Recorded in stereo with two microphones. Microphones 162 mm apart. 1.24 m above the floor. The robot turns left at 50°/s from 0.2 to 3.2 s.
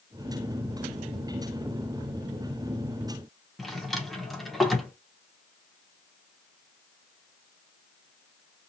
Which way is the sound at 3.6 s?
Centre (ahead or behind).